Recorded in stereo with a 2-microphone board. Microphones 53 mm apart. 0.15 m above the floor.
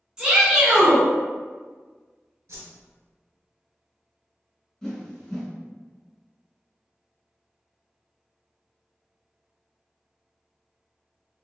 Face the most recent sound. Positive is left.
turn(degrees=10)  # may be behind; listen again after turning